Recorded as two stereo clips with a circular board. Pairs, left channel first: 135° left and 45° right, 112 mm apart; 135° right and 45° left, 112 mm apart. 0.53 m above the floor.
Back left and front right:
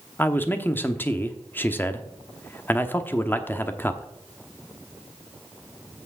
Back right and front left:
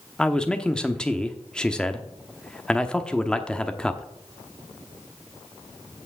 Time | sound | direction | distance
0.2 | a man speaking | 160° left | 0.9 m